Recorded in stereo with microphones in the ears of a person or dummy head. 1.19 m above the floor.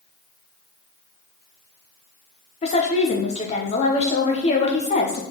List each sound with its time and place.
2.6 s a woman speaking: 30° left (ahead or behind), 0.9 m